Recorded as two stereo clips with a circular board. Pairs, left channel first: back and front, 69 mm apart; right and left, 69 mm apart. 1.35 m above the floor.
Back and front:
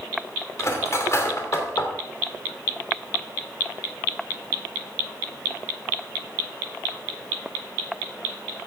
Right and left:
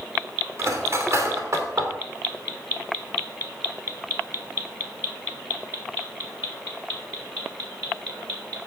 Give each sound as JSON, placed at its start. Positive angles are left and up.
{"t": 0.6, "sound": "cutlery clinking", "azimuth_deg": 135, "distance_m": 3.0}